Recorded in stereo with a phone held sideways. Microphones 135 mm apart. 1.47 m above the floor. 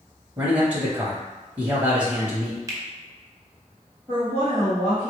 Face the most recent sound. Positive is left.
turn(degrees=-20)  # may be behind; listen again after turning